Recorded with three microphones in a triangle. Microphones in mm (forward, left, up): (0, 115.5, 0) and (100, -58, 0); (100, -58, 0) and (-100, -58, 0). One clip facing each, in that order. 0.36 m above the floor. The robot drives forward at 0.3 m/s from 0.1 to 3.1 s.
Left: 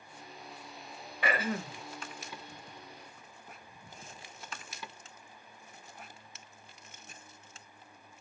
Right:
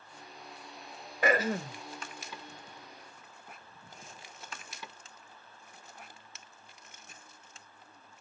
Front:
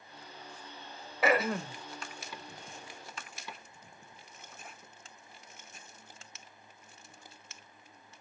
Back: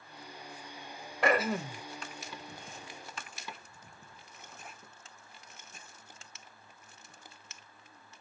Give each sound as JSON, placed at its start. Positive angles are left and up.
{"t": 1.2, "sound": "throat clearing", "azimuth_deg": -85, "distance_m": 0.6}